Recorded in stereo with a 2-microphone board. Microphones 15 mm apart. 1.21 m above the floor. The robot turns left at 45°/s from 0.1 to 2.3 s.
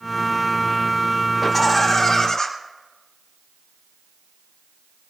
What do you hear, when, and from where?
1.4 s laughter: 175° left, 4 m; by 2.5 s 135° left, 4 m